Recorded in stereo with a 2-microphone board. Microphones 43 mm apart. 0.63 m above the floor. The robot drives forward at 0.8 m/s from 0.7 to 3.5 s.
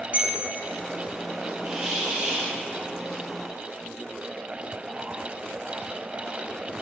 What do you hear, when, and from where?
0.1 s a bell: 40° right (ahead or behind), 0.8 m
1.6 s a hiss: 25° right (ahead or behind), 2 m; by 2.6 s 35° right (ahead or behind), 1.6 m